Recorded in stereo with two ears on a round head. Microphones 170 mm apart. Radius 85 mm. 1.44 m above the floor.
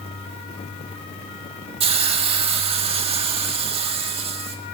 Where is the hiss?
30° right (ahead or behind), 1.7 m.